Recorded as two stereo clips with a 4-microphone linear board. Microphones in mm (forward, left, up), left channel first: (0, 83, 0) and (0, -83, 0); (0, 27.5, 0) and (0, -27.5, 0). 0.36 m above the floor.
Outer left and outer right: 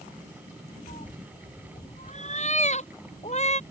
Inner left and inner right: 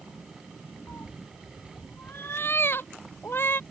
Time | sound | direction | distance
0.9 | a cat meowing | 45° left (ahead or behind) | ?